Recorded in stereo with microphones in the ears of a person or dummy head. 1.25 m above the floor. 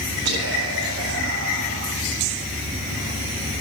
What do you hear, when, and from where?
0.2 s whispering: 75° right (ahead or behind), 1.6 m